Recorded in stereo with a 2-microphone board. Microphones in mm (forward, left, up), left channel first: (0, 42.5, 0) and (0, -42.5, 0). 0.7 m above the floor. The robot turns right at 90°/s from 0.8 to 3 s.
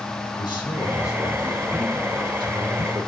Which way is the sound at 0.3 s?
110° left.